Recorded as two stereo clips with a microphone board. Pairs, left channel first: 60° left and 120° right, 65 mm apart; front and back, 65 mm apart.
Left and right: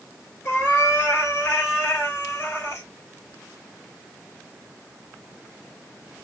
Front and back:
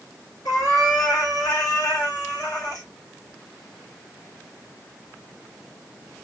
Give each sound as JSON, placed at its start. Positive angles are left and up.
{"t": 0.5, "sound": "a cat meowing", "azimuth_deg": 5, "distance_m": 1.6}